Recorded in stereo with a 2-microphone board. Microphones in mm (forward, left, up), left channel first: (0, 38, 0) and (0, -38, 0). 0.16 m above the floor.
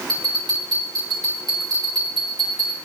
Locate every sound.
0.1 s a bell: 70° right (ahead or behind), 4 m